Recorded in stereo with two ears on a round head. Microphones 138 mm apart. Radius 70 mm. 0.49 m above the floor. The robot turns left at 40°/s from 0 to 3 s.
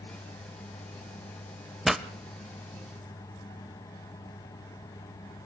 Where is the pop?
Centre (ahead or behind), 0.6 m; by 2.0 s 10° right (ahead or behind), 0.6 m.